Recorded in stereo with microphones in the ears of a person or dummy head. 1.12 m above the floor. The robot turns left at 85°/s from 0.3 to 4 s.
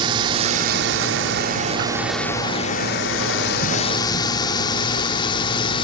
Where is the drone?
30° right (ahead or behind); by 5.8 s 25° left (ahead or behind).